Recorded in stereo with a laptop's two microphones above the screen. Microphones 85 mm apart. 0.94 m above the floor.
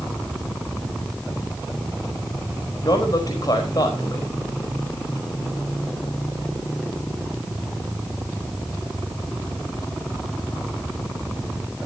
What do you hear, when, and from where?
2.8 s a man speaking: 50° left (ahead or behind), 4 m